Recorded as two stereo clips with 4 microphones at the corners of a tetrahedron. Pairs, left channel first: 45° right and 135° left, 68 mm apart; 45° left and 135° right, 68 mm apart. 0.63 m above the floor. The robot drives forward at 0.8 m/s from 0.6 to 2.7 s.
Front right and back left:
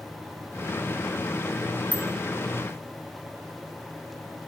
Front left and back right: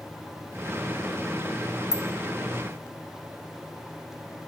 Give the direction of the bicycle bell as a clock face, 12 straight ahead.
10 o'clock.